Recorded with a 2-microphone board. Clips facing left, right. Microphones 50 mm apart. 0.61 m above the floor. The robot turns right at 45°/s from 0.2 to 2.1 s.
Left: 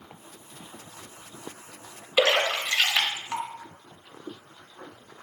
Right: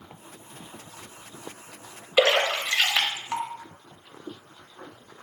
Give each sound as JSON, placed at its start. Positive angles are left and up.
{"t": 2.2, "sound": "a splash", "side_deg": -15, "distance_m": 0.6}